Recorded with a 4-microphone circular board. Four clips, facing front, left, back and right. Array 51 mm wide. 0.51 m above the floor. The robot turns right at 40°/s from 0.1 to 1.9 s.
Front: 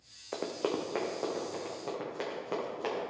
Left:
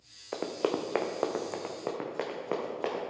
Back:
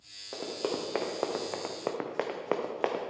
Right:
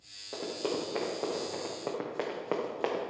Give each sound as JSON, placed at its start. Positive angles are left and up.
{"t": 0.3, "sound": "running footsteps", "azimuth_deg": 65, "distance_m": 1.3}